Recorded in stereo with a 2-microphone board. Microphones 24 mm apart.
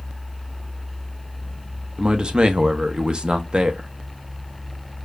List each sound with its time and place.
2.0 s a man speaking: 40° right (ahead or behind), 0.6 m